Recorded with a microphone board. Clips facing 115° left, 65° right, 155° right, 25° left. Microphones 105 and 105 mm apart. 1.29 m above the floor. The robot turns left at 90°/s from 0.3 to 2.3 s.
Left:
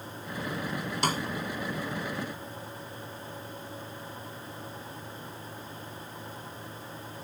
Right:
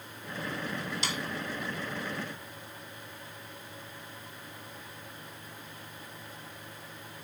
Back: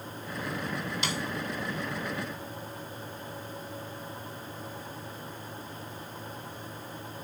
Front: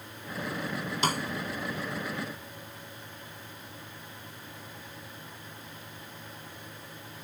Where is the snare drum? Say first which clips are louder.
Left 11 dB, front 8 dB; 70° left; by 1.2 s 55° left.